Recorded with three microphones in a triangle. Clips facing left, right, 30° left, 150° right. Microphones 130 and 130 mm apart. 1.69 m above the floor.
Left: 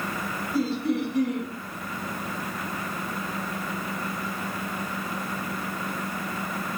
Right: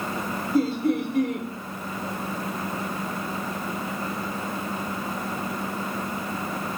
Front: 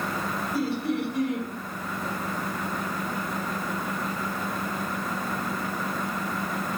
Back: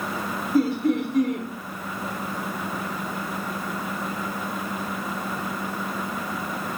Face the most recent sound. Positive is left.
turn(degrees=-115)